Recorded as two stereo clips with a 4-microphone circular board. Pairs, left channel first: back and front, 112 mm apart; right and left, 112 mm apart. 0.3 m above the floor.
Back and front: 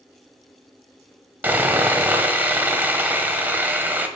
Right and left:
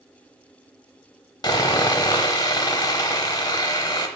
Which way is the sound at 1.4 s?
65° right.